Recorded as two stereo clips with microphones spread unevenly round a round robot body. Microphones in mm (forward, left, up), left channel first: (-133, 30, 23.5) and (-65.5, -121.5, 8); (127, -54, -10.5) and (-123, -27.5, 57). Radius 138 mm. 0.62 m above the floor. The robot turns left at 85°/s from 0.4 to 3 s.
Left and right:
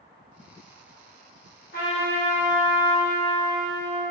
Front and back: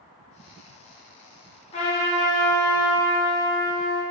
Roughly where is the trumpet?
Ahead left.